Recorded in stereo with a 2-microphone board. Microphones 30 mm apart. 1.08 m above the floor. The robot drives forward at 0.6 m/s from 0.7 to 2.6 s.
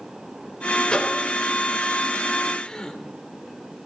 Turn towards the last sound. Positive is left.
turn(degrees=25)  # may be behind; listen again after turning